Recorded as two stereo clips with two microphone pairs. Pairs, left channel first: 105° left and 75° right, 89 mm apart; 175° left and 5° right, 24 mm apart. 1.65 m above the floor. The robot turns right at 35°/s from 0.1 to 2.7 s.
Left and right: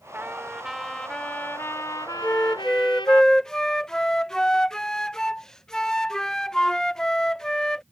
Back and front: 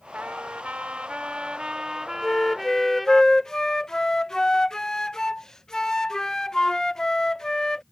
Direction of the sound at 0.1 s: 5° right.